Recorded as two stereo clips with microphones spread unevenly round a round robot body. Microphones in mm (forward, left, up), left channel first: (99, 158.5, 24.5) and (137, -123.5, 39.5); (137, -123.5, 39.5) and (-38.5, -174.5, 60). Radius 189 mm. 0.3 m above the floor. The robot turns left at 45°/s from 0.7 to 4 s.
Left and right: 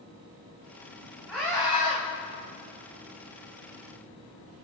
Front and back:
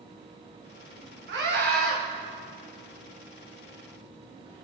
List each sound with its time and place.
1.3 s a scream: 170° right, 1.6 m; by 2.0 s 155° left, 1.6 m